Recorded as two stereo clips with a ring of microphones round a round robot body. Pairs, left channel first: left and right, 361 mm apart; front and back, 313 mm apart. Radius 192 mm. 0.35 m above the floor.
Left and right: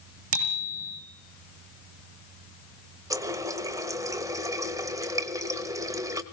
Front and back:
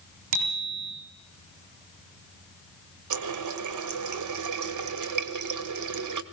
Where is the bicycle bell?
145° right, 6 m.